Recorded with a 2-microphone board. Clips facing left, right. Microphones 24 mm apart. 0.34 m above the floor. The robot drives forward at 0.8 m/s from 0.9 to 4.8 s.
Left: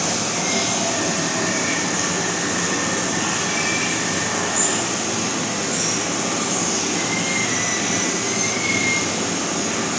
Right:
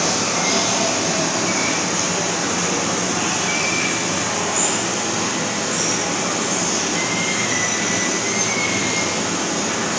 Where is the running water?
30° right (ahead or behind), 5.5 m; by 10.0 s 20° right (ahead or behind), 8.5 m.